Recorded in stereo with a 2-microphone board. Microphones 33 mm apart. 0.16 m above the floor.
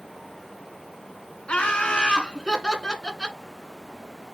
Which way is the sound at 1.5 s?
40° left (ahead or behind).